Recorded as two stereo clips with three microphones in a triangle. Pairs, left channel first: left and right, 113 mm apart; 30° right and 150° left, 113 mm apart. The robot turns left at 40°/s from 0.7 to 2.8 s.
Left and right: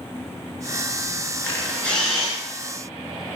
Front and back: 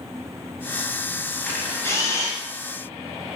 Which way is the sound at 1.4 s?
35° left.